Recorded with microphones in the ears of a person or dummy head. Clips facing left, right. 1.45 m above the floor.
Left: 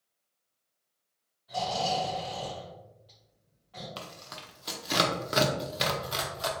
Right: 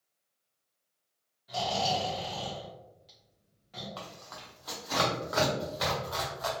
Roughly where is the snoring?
Right.